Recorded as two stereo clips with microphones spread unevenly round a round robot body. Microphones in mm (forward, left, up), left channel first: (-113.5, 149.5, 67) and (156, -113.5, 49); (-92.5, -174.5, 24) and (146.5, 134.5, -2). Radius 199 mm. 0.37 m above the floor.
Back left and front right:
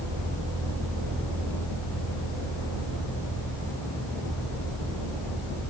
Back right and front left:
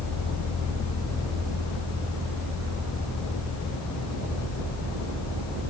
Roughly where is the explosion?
I don't hear an explosion.